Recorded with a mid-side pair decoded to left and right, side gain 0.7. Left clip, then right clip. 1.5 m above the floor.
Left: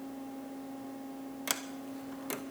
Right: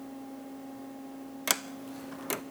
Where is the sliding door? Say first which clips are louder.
Right 6 dB; 25° right, 0.8 m.